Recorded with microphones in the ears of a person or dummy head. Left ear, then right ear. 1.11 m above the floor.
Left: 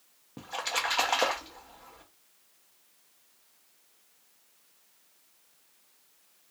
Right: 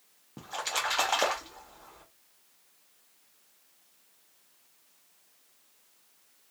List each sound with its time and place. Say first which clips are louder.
0.4 s a splash: left 1 dB; 5° left (ahead or behind), 0.5 m